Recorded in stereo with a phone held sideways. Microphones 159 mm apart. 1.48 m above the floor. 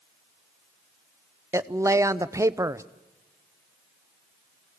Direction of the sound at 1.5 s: 20° right (ahead or behind).